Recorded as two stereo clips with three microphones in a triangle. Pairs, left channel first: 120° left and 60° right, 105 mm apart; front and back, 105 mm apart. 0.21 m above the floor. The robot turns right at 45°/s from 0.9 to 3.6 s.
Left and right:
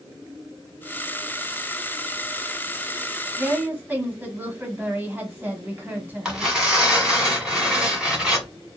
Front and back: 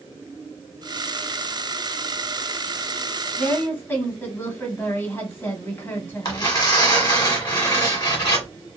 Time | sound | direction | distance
3.4 | a woman speaking | 35° right | 1.0 m
6.2 | tearing paper | 25° left | 1.3 m